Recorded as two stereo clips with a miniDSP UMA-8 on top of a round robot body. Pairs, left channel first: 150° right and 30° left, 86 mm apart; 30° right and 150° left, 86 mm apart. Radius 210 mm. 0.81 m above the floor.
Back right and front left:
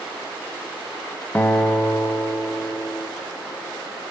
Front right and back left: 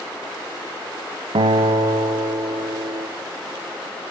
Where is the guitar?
140° left, 1.2 m.